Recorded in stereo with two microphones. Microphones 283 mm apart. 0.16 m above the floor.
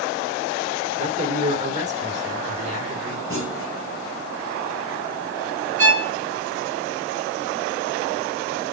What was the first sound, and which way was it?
A man speaking, 25° right (ahead or behind).